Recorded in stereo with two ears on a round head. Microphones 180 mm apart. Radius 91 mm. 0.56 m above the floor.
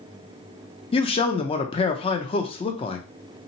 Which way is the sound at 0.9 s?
30° left (ahead or behind).